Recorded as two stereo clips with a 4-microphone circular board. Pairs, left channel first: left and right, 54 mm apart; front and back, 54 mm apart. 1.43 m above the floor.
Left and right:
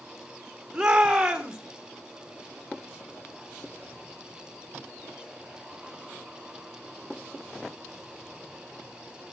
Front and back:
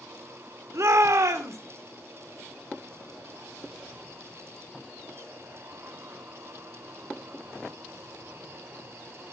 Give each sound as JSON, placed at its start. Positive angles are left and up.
{"t": 0.7, "sound": "a shout", "azimuth_deg": -165, "distance_m": 1.8}